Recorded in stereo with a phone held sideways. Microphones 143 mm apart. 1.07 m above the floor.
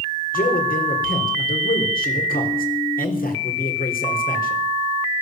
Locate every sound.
0.3 s a man speaking: 85° left, 3.5 m